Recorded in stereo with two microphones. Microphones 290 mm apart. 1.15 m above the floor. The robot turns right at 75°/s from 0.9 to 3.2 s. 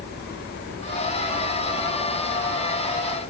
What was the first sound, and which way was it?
Only background noise.